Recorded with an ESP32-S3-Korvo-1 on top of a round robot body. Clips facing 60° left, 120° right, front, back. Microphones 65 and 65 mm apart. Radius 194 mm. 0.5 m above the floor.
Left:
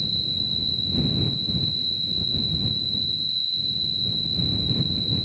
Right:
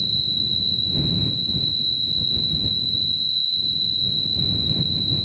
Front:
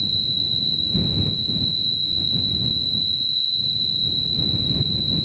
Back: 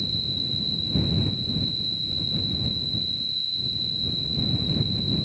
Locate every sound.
0.0 s an insect: 120° left